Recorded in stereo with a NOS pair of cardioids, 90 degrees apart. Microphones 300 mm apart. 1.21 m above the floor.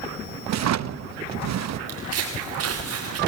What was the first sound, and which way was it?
A drawer, 65° right.